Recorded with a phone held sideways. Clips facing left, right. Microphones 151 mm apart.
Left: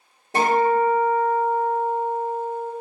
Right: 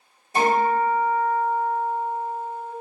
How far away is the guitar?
About 1.3 m.